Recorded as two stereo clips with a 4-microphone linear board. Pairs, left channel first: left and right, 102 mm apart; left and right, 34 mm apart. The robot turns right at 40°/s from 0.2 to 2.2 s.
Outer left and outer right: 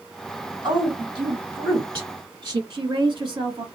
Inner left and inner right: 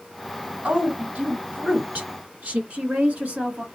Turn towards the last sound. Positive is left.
turn(degrees=-45)  # may be behind; listen again after turning